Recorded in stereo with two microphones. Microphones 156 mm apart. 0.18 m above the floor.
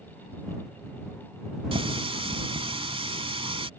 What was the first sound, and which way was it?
A running tap, 35° right (ahead or behind).